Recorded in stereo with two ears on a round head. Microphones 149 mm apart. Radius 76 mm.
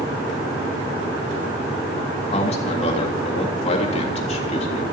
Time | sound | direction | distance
2.3 | a man speaking | 40° left (ahead or behind) | 3.5 m